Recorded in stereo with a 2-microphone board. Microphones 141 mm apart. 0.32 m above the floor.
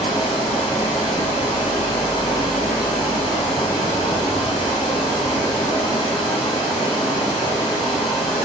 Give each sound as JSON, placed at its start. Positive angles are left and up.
{"t": 0.0, "sound": "running water", "side_deg": 35, "distance_m": 1.1}